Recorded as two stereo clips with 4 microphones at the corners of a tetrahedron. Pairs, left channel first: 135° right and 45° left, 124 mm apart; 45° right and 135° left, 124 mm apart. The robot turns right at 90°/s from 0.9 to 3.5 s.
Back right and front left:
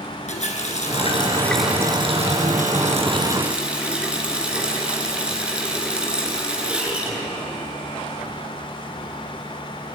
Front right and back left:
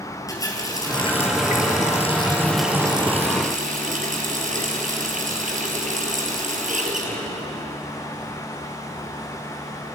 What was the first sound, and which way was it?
A running tap, 105° right.